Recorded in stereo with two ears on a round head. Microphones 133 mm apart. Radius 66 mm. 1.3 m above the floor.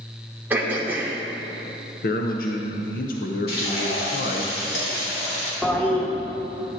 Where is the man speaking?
60° left (ahead or behind), 0.7 m.